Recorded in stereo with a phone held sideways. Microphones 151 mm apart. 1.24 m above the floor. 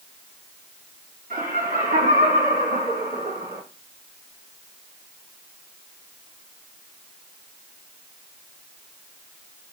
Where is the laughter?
75° right (ahead or behind), 3 m.